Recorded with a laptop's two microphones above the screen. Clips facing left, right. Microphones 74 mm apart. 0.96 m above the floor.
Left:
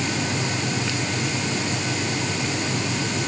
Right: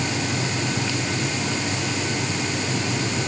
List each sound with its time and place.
Only background noise.